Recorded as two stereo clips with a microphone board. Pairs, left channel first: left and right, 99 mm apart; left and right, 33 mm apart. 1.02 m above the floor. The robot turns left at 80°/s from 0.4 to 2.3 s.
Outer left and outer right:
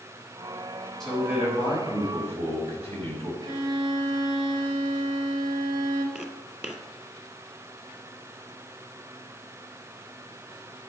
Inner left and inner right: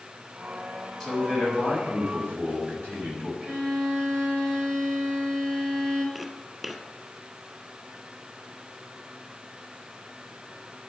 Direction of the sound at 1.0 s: 5° left.